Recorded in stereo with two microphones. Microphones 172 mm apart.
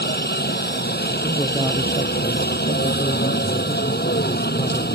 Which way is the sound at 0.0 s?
70° left (ahead or behind).